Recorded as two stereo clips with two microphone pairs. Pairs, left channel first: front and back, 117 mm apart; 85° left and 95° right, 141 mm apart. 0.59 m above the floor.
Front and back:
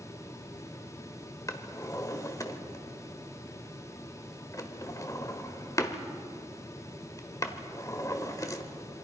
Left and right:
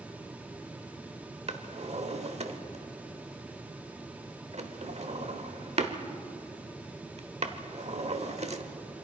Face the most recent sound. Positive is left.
turn(degrees=-60)